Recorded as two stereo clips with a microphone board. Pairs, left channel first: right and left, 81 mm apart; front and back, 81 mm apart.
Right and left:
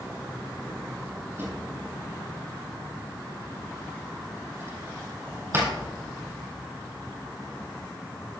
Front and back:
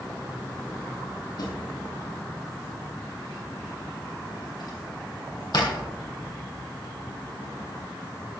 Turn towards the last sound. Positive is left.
turn(degrees=30)